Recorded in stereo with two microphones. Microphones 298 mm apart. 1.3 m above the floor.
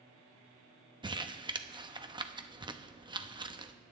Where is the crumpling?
15° right (ahead or behind), 0.6 m.